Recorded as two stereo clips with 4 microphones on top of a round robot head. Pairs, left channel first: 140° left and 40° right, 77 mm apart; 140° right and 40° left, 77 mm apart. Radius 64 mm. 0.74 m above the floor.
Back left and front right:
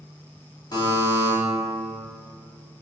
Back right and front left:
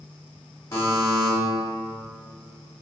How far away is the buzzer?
About 1.5 m.